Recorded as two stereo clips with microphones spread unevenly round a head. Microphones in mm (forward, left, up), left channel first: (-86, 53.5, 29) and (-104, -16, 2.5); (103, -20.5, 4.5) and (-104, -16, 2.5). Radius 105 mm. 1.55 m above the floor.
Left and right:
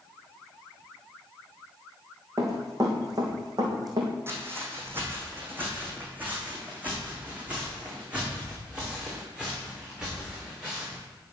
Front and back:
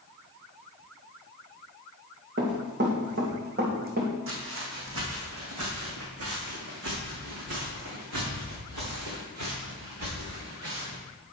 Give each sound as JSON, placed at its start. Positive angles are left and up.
{"t": 2.4, "sound": "running footsteps", "azimuth_deg": -155, "distance_m": 4.0}
{"t": 4.3, "sound": "footsteps", "azimuth_deg": -170, "distance_m": 3.5}